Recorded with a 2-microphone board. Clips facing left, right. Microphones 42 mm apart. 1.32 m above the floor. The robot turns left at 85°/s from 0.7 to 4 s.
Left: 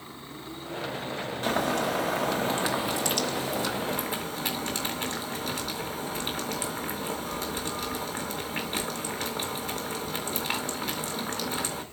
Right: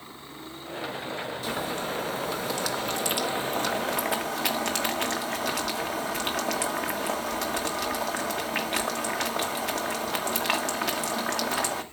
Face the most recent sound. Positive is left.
turn(degrees=-85)